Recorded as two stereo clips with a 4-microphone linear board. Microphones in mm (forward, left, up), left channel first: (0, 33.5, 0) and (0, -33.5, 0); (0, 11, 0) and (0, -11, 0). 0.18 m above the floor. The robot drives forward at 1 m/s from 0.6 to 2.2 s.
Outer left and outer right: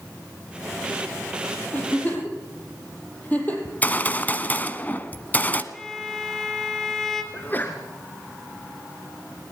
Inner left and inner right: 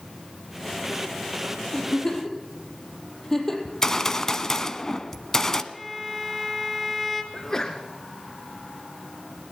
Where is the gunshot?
25° left (ahead or behind), 1.3 m.